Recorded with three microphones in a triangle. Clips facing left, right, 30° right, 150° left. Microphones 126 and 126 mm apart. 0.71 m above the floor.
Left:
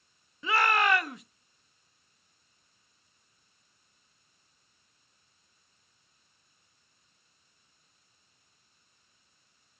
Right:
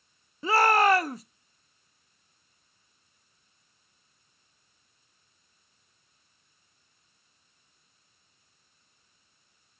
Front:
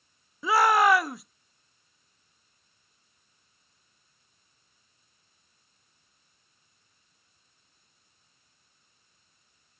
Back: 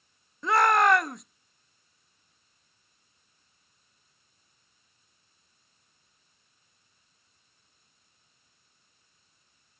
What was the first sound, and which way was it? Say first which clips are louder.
A shout: right 5 dB, front 1 dB; 115° right.